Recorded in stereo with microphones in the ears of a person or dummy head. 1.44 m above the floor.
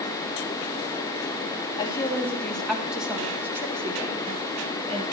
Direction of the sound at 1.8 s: 25° left (ahead or behind).